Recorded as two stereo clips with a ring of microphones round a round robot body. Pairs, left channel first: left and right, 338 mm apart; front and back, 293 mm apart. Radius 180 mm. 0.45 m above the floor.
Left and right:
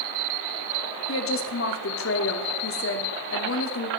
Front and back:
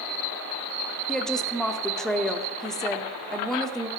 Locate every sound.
1.1 s a woman speaking: 90° left, 1.1 m